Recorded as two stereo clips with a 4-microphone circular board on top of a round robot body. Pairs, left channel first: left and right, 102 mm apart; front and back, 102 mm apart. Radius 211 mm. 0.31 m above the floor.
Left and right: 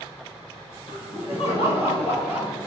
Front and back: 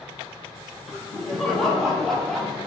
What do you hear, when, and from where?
0.9 s laughter: 90° left, 4.5 m; by 2.7 s 85° left, 3 m